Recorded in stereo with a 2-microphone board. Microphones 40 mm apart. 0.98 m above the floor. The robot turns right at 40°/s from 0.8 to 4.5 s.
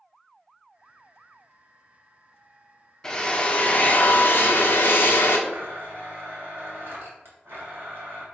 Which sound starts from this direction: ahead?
A drill, at 3.0 s.